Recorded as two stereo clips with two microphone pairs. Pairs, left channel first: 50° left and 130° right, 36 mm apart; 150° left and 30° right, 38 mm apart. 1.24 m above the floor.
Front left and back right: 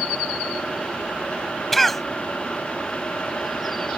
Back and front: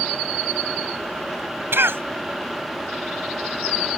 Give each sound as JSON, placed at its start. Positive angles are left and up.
{"t": 1.7, "sound": "a cough", "azimuth_deg": -35}